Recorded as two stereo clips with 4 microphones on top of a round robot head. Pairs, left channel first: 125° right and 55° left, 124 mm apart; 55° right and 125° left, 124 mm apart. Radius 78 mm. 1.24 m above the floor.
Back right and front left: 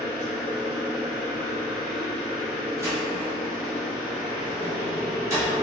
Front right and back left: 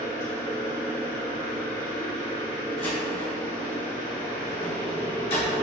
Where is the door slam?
10° right, 1.4 m.